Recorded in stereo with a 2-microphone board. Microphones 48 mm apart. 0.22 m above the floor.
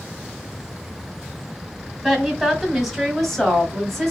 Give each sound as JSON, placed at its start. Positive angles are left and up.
{"t": 2.0, "sound": "a woman speaking", "side_deg": -5, "distance_m": 1.6}